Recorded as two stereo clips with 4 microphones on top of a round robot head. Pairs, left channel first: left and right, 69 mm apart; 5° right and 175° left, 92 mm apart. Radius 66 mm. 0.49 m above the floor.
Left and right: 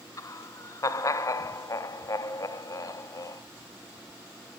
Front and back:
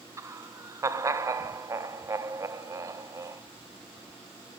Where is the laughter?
120° left, 2 m.